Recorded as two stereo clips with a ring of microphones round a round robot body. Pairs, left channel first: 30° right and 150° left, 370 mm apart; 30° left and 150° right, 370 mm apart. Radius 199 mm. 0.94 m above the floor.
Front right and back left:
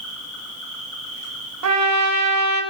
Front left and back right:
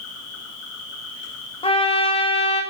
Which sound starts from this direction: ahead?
An insect, at 0.0 s.